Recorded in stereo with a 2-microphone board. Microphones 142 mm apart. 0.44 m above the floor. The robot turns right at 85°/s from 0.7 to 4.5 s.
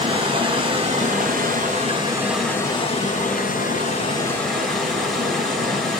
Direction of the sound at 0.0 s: 145° right.